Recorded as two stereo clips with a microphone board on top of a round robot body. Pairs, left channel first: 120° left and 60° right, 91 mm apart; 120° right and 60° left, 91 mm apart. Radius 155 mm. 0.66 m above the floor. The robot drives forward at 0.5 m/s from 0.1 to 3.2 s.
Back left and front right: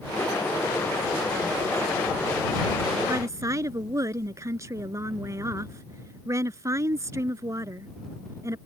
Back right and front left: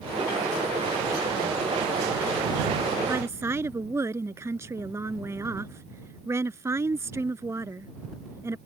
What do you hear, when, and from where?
3.1 s a woman speaking: straight ahead